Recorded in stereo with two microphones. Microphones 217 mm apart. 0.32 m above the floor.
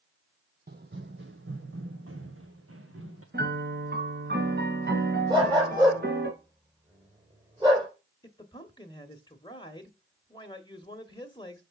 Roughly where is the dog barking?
Centre.